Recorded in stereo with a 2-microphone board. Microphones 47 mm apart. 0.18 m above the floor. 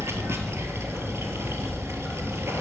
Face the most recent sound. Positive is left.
turn(degrees=-65)  # may be behind; listen again after turning